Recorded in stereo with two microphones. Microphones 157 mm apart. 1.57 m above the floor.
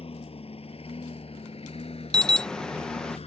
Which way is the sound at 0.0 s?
40° left (ahead or behind).